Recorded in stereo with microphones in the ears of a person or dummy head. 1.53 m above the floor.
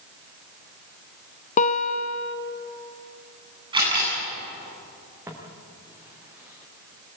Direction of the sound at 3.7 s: 25° right (ahead or behind).